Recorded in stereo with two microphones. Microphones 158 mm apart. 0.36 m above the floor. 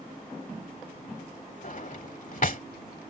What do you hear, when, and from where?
1.6 s a drawer: 60° left (ahead or behind)